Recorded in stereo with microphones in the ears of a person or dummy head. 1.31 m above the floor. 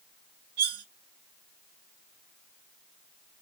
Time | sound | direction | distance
0.6 | cutlery clinking | 60° right (ahead or behind) | 0.9 m